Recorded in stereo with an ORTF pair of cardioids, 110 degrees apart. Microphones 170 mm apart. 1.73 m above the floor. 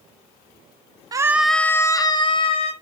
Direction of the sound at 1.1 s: 20° right.